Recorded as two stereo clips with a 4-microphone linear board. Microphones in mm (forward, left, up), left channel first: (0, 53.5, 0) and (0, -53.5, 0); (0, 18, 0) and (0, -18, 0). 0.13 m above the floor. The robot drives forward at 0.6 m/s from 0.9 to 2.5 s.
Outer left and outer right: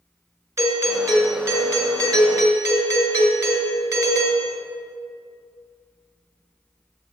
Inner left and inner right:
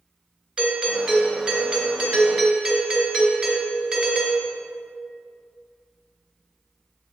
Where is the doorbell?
25° right (ahead or behind), 2.5 m; by 4.5 s 30° right (ahead or behind), 2.5 m.